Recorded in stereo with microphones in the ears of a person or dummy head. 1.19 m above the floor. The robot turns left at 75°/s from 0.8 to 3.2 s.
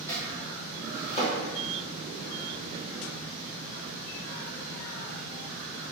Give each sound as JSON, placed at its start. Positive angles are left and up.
{"t": 0.1, "sound": "chopping", "side_deg": 15, "distance_m": 0.9}